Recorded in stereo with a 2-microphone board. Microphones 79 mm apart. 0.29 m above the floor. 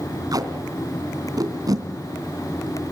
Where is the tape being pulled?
50° right (ahead or behind), 2.5 m.